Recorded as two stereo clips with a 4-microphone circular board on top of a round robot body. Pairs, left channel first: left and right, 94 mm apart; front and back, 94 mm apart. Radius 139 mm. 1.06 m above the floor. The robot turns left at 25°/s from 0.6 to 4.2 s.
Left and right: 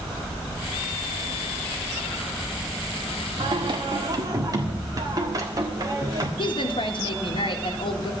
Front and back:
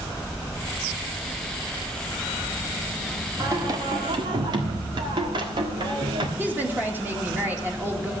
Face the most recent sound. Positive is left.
turn(degrees=110)